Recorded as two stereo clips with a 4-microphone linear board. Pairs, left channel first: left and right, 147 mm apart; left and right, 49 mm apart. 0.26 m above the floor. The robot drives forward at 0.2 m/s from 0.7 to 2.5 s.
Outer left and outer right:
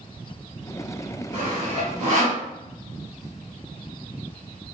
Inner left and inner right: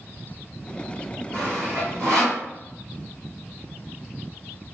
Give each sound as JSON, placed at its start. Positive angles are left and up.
{"t": 1.3, "sound": "sawing", "side_deg": -60, "distance_m": 1.7}